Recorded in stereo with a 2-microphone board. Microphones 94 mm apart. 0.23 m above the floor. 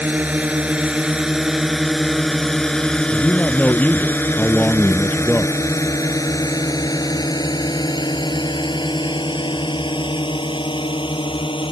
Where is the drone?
15° right (ahead or behind); by 11.7 s 65° left (ahead or behind).